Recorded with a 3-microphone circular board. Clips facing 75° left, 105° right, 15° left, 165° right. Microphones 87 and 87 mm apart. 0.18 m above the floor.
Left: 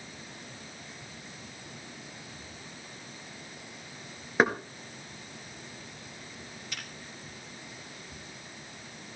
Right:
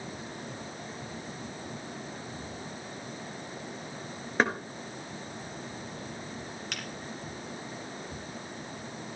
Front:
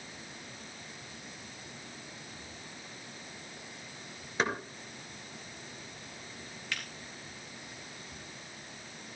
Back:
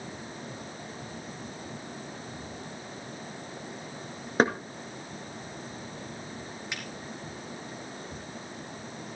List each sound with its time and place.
4.4 s knocking: 155° left, 1.9 m
6.7 s a finger snap: 95° right, 3 m